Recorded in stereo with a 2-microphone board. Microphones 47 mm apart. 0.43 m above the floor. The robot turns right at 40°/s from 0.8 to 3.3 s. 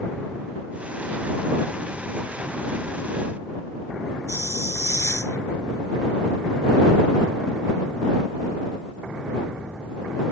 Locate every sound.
4.3 s a hiss: 80° left